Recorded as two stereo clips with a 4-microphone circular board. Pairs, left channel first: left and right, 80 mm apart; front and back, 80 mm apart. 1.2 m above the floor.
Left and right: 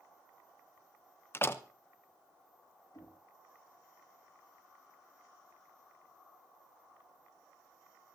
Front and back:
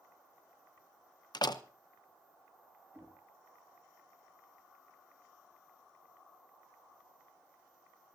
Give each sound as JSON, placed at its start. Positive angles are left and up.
{"t": 1.3, "sound": "a door slam", "azimuth_deg": 30, "distance_m": 0.7}
{"t": 2.9, "sound": "knocking", "azimuth_deg": 120, "distance_m": 9.0}